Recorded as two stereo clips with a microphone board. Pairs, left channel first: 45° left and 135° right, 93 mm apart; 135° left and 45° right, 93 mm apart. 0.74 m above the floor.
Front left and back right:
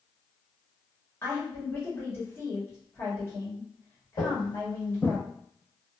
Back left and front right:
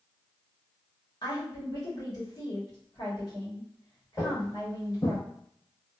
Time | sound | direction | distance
1.2 | a woman speaking | 105° left | 1.4 m
4.2 | footsteps | 65° left | 1.3 m